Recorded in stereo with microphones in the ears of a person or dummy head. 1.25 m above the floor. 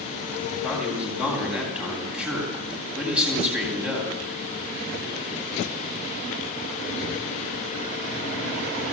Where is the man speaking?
5° right (ahead or behind), 9.5 m.